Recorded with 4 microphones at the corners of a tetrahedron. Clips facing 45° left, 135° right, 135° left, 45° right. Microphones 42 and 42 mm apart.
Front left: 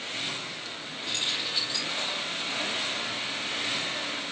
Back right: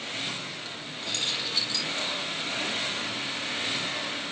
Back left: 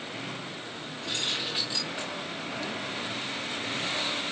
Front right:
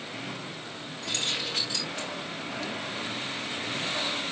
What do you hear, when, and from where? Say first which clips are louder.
1.0 s keys jangling: even, even; 25° right, 4.5 m